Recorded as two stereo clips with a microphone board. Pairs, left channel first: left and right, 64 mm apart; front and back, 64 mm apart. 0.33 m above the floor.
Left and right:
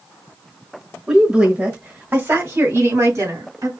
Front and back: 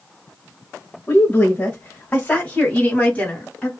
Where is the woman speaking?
20° right, 1.1 m; by 3.7 s 70° right, 2 m.